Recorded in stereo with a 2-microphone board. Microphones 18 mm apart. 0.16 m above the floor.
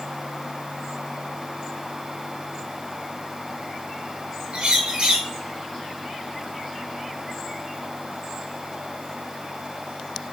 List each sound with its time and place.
4.5 s a bird: 55° right (ahead or behind), 1.5 m